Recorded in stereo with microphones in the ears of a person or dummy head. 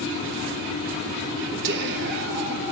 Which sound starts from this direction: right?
Whispering, at 1.6 s.